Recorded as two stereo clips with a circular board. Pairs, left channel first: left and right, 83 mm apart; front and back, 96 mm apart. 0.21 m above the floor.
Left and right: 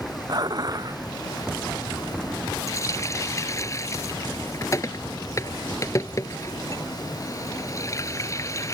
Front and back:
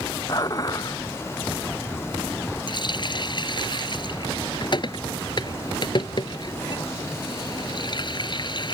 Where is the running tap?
40° left.